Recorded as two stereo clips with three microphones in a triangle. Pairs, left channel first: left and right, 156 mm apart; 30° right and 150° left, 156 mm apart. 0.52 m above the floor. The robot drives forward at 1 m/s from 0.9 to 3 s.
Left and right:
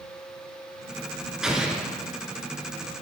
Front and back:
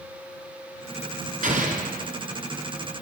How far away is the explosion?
About 1.8 m.